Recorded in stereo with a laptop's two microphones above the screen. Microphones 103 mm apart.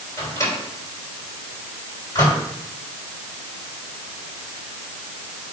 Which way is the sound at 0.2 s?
25° left (ahead or behind).